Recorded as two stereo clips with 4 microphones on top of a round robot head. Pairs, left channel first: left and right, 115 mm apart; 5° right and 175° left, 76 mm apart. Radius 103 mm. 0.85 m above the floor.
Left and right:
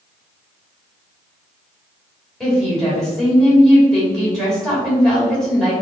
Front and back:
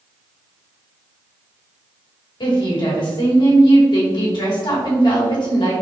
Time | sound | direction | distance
2.4 | a woman speaking | 5° left | 1.9 m